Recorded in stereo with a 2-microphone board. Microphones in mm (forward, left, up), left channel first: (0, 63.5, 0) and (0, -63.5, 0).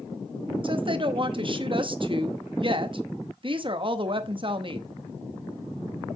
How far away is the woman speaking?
About 0.8 m.